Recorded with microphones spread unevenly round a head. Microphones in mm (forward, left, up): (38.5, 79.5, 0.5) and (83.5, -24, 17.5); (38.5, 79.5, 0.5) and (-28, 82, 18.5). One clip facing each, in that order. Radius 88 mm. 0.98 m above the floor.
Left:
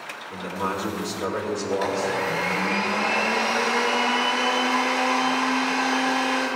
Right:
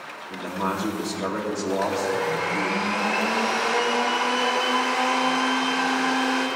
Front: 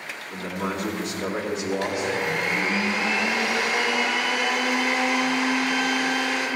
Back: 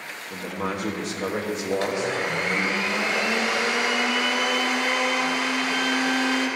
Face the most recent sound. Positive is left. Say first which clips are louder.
# even, back 2 dB
turn(degrees=175)